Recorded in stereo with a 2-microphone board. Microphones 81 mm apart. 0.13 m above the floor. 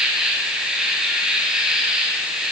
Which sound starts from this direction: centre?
An insect, at 0.0 s.